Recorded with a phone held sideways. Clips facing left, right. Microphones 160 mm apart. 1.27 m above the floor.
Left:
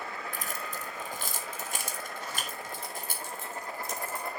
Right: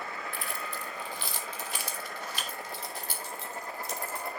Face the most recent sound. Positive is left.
turn(degrees=50)  # may be behind; listen again after turning